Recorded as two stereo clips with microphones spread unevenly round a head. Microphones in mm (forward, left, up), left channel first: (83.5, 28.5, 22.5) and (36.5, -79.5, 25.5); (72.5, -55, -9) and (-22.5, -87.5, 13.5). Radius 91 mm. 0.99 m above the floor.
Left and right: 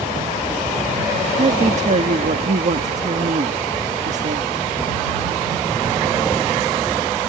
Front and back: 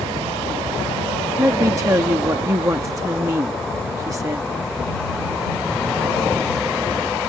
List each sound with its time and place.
1.4 s a woman speaking: 95° right